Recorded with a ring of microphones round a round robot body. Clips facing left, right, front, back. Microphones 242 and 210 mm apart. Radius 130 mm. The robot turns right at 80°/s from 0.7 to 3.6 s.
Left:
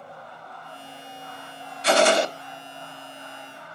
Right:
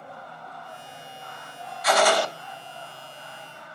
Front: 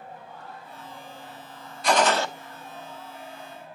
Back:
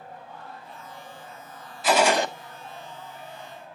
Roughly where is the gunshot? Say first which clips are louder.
Left 3 dB, back 1 dB; left.